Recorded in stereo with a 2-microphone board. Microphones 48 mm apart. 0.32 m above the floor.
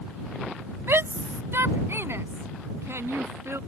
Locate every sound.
0.9 s a shout: 60° right (ahead or behind); by 3.6 s 70° right (ahead or behind)